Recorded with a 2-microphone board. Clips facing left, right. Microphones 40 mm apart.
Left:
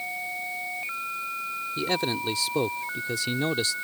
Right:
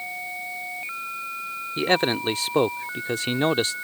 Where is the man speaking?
50° right (ahead or behind).